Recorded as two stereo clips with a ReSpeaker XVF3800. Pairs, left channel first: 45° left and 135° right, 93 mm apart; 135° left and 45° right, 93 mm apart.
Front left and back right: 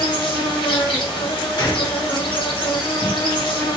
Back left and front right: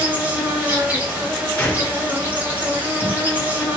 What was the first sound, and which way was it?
An insect, 25° left.